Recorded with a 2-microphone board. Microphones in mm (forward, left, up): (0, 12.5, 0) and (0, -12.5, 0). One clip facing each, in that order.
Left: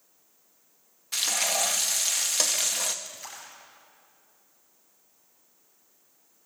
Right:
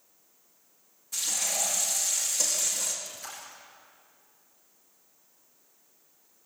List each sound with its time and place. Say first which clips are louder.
1.1 s frying: left 4 dB; 55° left (ahead or behind), 1.6 m
3.0 s a splash: even; 15° left (ahead or behind), 5 m